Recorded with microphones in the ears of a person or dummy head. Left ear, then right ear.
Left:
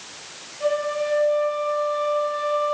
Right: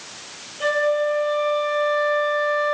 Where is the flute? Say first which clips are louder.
Right 3 dB; 45° right (ahead or behind), 4.5 m.